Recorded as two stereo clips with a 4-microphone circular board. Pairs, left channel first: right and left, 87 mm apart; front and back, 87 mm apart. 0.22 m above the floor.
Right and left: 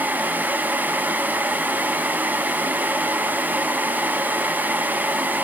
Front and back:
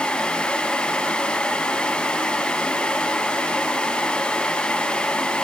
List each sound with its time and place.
Only background noise.